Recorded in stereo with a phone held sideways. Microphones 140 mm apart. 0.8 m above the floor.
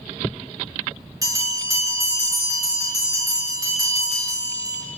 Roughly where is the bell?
Right.